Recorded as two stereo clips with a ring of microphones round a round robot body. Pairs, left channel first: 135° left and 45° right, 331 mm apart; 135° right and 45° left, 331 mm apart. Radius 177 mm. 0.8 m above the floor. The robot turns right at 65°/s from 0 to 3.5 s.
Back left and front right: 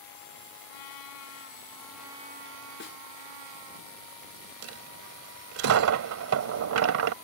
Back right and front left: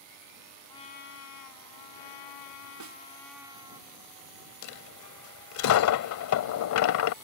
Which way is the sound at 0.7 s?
145° left.